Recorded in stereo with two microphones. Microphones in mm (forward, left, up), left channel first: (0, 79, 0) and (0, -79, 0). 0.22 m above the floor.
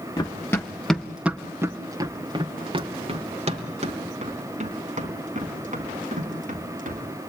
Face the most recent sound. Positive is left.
turn(degrees=-60)  # may be behind; listen again after turning